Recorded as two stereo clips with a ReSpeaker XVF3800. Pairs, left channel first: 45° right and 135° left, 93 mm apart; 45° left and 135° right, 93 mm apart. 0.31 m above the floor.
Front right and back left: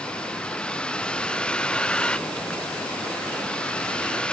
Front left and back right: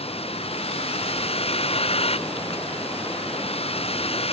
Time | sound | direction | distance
0.0 | a vehicle | 35° left | ?